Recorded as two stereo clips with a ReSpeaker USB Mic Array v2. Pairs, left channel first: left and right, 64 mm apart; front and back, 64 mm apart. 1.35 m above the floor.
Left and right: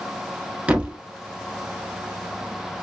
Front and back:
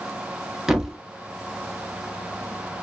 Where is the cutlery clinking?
No cutlery clinking in this recording.